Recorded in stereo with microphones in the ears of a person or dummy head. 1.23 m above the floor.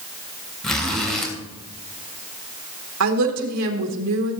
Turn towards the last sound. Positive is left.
turn(degrees=-80)